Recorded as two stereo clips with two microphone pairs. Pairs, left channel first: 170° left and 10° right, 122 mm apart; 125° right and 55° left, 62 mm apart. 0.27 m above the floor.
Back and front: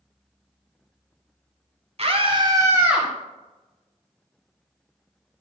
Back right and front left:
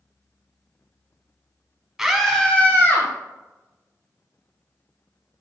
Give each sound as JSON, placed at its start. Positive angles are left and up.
{"t": 2.0, "sound": "a scream", "azimuth_deg": -30, "distance_m": 1.7}